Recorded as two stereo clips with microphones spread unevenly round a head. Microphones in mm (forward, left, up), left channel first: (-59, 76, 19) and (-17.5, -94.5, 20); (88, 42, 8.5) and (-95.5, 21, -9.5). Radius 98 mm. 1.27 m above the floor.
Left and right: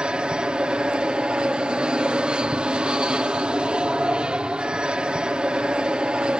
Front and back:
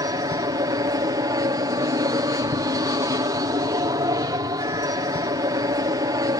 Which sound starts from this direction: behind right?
An aircraft, at 0.0 s.